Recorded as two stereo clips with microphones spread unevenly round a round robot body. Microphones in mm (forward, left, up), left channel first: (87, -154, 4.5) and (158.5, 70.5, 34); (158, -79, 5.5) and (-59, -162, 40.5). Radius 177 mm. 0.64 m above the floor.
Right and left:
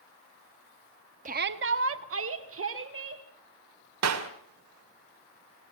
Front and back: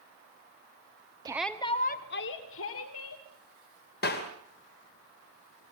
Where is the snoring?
No snoring in this recording.